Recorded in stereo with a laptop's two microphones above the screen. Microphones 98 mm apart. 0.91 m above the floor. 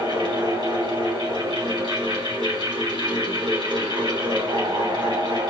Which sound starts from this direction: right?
A fan, at 0.0 s.